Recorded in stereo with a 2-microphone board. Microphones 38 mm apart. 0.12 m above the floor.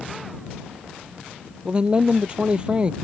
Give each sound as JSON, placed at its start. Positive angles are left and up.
{"t": 1.6, "sound": "a man speaking", "side_deg": -25}